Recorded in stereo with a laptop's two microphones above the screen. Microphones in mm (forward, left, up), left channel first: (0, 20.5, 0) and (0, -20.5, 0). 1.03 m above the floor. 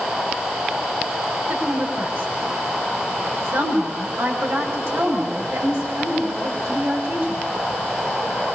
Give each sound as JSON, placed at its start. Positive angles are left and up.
{"t": 1.5, "sound": "a woman speaking", "side_deg": -80, "distance_m": 6.5}